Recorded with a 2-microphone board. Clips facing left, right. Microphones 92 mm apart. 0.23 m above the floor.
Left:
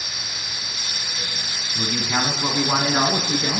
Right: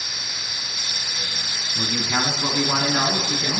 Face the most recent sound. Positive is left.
turn(degrees=40)  # may be behind; listen again after turning